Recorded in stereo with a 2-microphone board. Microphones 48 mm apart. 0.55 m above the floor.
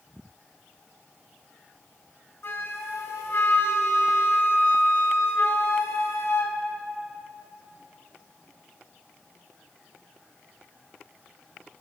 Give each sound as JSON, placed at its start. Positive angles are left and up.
{"t": 2.4, "sound": "a flute", "side_deg": 60, "distance_m": 0.6}